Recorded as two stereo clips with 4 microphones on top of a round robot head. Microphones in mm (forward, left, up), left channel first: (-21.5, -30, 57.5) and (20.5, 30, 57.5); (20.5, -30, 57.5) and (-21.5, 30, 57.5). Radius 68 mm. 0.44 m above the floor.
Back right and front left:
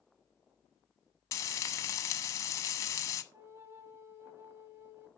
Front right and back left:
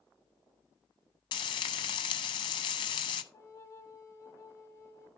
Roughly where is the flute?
Ahead.